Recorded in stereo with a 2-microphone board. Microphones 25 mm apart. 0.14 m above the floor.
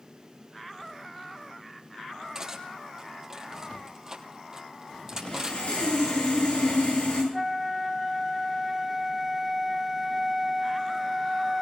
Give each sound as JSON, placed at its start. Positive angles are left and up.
{"t": 2.4, "sound": "cutlery clinking", "side_deg": -25, "distance_m": 2.5}
{"t": 5.2, "sound": "sawing", "side_deg": 65, "distance_m": 9.0}
{"t": 7.3, "sound": "a flute", "side_deg": -5, "distance_m": 1.1}